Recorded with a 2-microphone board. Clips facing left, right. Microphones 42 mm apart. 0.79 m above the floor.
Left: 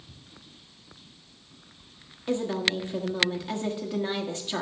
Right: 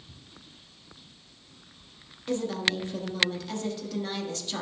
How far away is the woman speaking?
About 1.2 m.